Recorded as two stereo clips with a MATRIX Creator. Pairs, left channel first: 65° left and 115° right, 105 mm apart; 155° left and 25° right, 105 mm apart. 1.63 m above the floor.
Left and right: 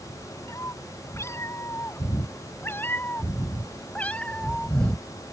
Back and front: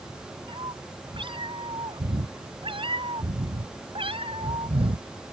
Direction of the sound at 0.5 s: 10° left.